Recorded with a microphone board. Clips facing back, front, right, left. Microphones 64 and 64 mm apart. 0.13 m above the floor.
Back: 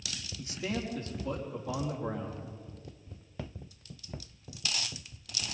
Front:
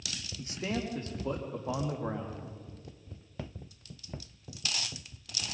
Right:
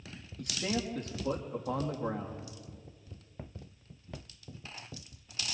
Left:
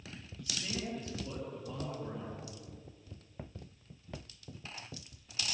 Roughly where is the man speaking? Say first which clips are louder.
Front 1 dB, right 6 dB; ahead right.